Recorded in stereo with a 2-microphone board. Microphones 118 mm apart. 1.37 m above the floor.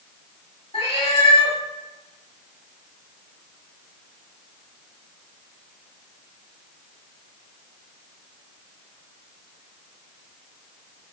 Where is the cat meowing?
55° left (ahead or behind), 1.5 m.